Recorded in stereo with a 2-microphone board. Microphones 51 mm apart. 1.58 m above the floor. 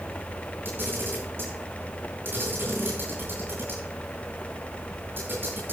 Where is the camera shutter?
40° right (ahead or behind), 9 m.